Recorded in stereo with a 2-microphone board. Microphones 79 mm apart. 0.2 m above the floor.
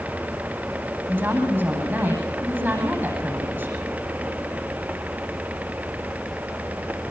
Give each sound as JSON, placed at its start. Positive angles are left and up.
{"t": 1.1, "sound": "a woman speaking", "side_deg": -25, "distance_m": 9.5}